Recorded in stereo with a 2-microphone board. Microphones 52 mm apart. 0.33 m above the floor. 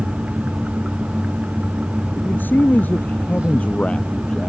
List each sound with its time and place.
2.1 s a man speaking: 40° left (ahead or behind); by 4.5 s 15° left (ahead or behind)